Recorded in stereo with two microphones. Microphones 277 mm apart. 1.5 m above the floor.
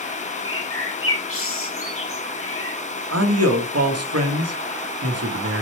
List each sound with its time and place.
0.5 s a bird: 50° left (ahead or behind), 0.9 m
3.1 s a man speaking: 60° right (ahead or behind), 0.8 m